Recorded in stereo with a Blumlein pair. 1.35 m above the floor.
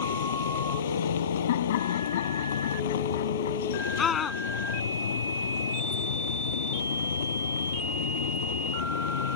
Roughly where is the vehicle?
Ahead left.